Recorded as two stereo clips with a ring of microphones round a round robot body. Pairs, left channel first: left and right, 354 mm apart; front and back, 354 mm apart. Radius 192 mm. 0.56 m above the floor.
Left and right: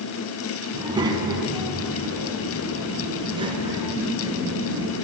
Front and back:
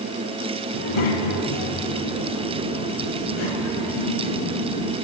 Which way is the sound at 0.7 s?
10° right.